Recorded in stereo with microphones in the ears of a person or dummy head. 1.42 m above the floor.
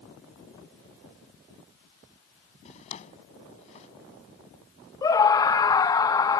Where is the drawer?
35° left (ahead or behind).